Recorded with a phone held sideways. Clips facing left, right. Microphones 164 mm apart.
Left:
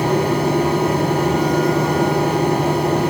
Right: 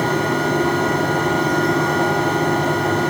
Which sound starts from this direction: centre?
A fan, at 0.0 s.